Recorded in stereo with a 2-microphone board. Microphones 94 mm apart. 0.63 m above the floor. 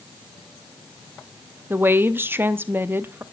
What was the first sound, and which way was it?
A woman speaking, 25° right (ahead or behind).